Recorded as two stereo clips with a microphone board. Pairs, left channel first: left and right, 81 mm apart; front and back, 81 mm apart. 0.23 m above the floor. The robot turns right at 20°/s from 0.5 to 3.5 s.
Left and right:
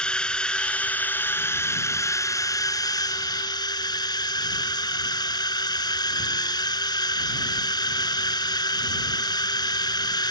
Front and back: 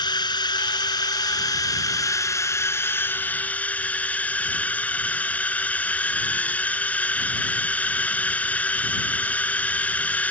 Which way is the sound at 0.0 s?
10° left.